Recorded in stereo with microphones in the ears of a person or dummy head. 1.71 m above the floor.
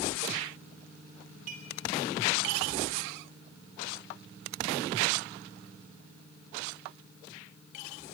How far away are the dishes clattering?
About 8 m.